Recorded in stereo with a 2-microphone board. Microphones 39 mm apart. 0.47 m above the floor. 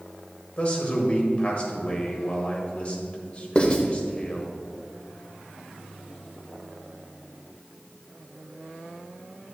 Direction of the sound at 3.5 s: 30° left (ahead or behind).